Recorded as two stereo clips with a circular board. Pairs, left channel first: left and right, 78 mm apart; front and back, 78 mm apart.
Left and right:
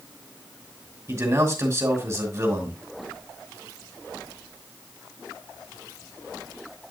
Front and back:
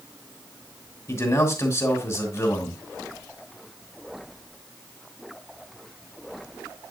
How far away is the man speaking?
About 2 m.